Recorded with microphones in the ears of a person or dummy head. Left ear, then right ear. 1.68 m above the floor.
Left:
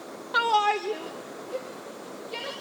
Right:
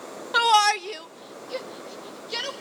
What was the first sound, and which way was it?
A shout, 20° right (ahead or behind).